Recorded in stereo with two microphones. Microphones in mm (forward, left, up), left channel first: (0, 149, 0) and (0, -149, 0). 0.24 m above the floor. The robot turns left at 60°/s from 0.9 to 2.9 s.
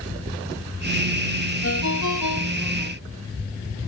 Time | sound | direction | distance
1.6 | a ringtone | 135° left | ?